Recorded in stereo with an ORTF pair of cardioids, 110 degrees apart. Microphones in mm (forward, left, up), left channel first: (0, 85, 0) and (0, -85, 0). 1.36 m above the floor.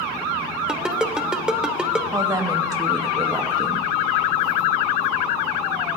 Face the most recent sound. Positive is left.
turn(degrees=-20)